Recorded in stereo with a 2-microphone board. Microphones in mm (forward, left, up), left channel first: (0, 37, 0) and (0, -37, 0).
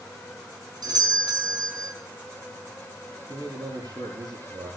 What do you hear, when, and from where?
0.8 s a doorbell: 65° right (ahead or behind), 4.5 m
3.3 s a man speaking: 65° right (ahead or behind), 7 m